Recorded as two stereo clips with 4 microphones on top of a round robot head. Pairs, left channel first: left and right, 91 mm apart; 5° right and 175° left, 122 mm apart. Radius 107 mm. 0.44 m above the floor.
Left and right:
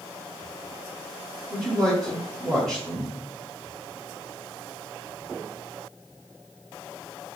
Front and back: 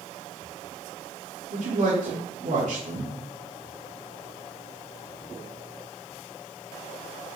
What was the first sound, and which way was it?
A man speaking, 175° left.